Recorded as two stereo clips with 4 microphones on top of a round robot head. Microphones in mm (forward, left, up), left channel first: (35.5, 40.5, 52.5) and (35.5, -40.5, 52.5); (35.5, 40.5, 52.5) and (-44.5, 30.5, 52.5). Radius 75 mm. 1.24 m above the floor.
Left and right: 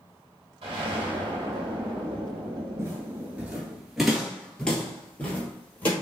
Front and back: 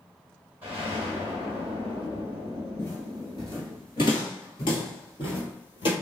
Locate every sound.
0.6 s an explosion: 95° right, 1.7 m
2.8 s footsteps: 50° right, 1.4 m; by 5.9 s 25° left, 2.5 m